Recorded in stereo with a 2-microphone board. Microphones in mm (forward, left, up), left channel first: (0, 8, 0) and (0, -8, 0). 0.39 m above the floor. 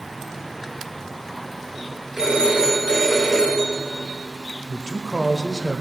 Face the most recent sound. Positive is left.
turn(degrees=25)  # may be behind; listen again after turning